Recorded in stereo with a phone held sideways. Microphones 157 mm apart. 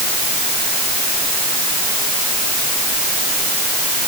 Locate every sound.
Only background noise.